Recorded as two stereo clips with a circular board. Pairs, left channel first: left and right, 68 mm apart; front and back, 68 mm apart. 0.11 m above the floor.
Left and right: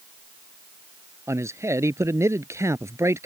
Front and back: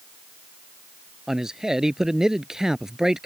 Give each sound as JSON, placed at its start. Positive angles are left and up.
{"t": 1.3, "sound": "a man speaking", "azimuth_deg": -100}